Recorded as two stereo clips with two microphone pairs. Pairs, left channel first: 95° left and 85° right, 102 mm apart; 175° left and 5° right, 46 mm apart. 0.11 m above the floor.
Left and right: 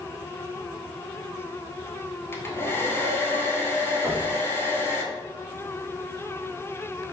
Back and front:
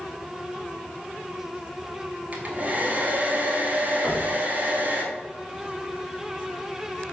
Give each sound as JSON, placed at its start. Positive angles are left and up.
{"t": 2.3, "sound": "a hair dryer", "azimuth_deg": 40, "distance_m": 1.0}
{"t": 4.0, "sound": "knocking", "azimuth_deg": 0, "distance_m": 1.5}